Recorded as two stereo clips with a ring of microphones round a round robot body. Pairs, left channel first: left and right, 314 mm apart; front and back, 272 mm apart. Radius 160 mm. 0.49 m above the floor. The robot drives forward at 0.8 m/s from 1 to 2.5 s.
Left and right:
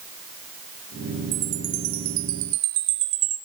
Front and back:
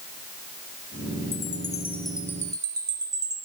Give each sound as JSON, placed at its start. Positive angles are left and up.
{"t": 1.3, "sound": "a chime", "azimuth_deg": -65, "distance_m": 1.7}